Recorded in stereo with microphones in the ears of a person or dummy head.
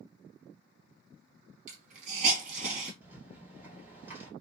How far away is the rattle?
About 1.2 m.